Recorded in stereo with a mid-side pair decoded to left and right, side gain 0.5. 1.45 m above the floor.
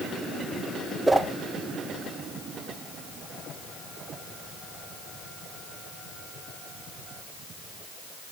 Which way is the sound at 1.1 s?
15° right.